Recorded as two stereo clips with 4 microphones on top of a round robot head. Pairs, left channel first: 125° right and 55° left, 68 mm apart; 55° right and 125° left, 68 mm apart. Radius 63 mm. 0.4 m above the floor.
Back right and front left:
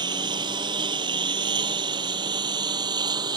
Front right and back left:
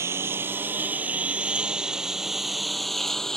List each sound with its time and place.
0.0 s a lawn mower: 75° left; by 3.4 s 30° left